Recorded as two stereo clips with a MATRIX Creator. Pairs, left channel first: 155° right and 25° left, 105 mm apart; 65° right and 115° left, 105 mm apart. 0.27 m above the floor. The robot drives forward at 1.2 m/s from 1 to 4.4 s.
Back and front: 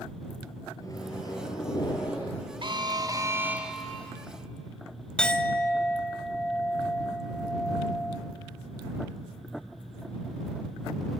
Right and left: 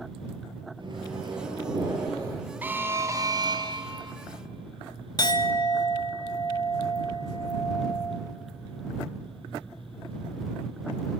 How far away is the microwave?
About 3.5 m.